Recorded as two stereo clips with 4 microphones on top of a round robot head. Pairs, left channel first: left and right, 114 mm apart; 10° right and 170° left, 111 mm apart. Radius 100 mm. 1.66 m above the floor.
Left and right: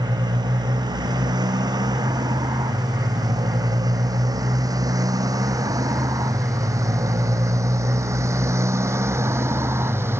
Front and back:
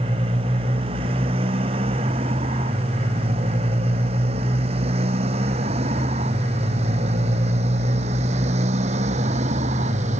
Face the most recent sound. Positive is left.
turn(degrees=-160)